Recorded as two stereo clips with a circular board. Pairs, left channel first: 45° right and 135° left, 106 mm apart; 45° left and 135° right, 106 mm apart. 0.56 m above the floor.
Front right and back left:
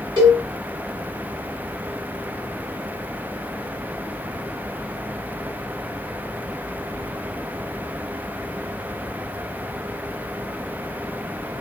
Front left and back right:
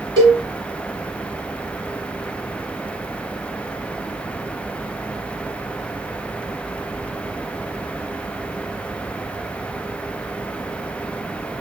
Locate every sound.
0.2 s a cowbell: straight behind, 3 m